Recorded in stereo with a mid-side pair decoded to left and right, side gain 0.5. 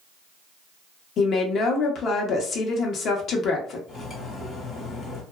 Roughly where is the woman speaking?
Ahead left.